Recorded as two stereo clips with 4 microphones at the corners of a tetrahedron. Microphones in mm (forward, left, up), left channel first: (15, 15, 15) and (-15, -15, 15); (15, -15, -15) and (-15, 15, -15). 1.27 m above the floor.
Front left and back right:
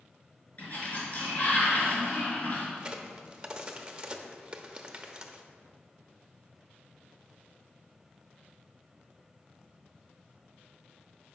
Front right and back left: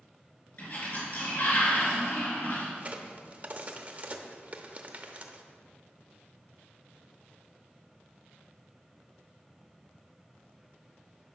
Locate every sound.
0.6 s a sliding door: 5° right, 3 m
2.8 s a crack: 165° left, 0.8 m